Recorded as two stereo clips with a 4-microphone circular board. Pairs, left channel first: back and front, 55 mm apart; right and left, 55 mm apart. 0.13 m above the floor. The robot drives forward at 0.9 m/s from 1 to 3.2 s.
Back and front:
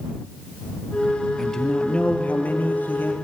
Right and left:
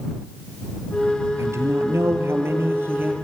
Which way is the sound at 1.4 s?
95° left.